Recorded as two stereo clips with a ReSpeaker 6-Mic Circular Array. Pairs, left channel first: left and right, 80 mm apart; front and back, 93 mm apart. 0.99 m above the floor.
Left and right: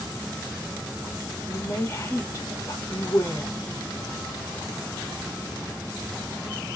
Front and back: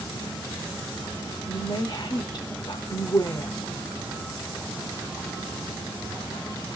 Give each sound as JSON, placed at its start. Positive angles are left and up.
{"t": 1.5, "sound": "a woman speaking", "azimuth_deg": 40, "distance_m": 1.7}